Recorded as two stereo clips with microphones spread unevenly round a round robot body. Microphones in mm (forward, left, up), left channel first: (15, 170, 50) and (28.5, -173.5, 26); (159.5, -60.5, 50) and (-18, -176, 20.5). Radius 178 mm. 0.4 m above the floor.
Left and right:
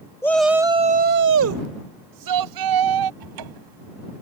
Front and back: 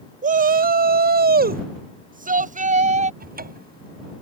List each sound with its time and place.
0.2 s a shout: 175° left; by 3.1 s 95° right
3.2 s a cupboard door: 105° right